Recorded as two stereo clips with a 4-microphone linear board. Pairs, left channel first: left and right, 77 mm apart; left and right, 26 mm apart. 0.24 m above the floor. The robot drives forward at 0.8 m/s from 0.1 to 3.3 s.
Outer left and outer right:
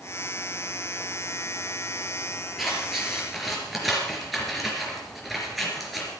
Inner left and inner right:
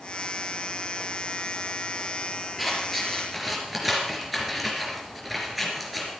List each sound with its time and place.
2.6 s scissors: centre (ahead or behind), 4 m